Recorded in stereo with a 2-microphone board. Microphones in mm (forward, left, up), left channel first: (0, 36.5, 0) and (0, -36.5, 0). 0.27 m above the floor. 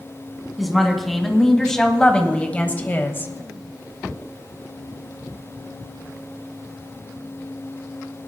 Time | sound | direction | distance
0.6 | a woman speaking | centre (ahead or behind) | 2.5 m